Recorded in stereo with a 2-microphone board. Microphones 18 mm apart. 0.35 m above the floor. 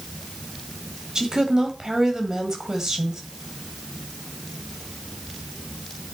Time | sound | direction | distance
1.1 | a woman speaking | 40° right (ahead or behind) | 1.8 m